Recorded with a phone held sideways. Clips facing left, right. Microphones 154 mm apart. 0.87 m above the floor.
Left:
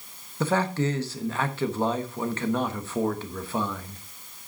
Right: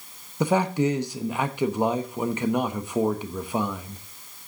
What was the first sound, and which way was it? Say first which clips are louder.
A man speaking: right 3 dB; 15° right (ahead or behind).